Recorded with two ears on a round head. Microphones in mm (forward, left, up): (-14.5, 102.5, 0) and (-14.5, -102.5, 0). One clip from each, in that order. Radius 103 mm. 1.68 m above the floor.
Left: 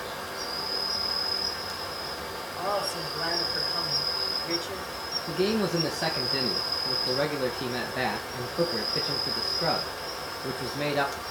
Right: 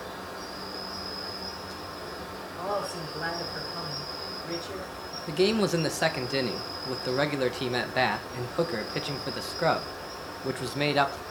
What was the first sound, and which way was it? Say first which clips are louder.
An insect: left 4 dB; 65° left (ahead or behind).